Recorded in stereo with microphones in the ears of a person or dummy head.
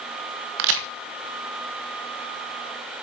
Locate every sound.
0.6 s a crack: 55° right (ahead or behind), 1.5 m